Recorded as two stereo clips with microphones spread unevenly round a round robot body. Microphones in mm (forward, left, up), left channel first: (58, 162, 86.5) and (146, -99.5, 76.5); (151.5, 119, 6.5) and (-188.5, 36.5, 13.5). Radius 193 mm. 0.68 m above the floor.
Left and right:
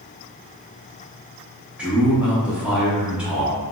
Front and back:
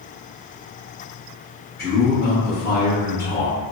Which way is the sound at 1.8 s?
5° left.